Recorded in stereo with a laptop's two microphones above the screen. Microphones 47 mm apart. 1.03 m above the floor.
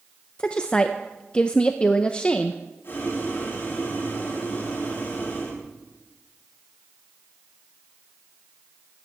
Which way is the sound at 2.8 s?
55° left (ahead or behind).